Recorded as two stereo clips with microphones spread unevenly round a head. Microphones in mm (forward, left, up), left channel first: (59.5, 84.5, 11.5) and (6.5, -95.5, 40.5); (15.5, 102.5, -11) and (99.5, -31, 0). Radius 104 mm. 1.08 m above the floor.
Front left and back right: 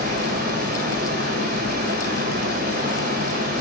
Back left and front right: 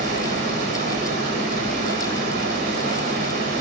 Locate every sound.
0.0 s running water: 70° right, 4.5 m